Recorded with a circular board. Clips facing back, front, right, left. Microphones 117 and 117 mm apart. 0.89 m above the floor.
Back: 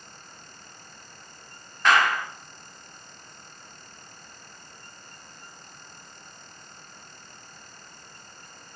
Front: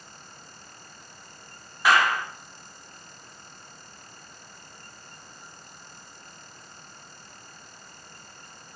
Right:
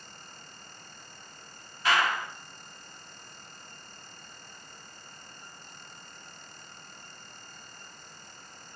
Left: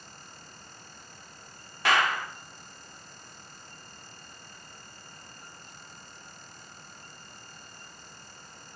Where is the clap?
80° left, 1.8 m.